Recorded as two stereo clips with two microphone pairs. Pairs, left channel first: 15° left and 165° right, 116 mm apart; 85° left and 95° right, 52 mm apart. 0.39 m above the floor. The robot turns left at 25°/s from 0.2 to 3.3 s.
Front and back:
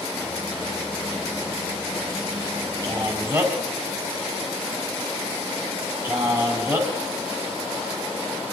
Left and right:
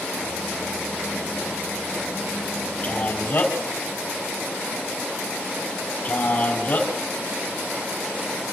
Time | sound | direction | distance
2.8 | a man speaking | 140° left | 3.5 m